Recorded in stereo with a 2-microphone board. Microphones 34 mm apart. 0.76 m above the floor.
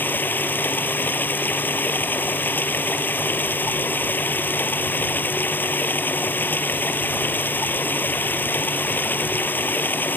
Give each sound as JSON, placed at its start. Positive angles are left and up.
{"t": 0.0, "sound": "running water", "side_deg": 80}